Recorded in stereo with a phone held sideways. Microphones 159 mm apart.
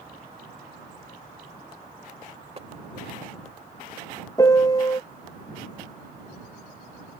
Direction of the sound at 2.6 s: 40° right (ahead or behind).